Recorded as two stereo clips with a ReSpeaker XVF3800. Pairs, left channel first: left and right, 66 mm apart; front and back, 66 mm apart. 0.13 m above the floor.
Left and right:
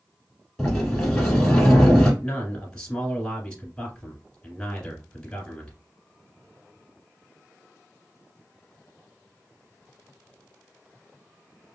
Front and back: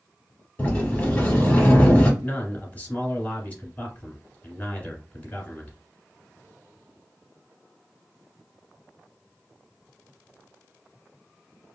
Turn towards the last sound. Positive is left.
turn(degrees=25)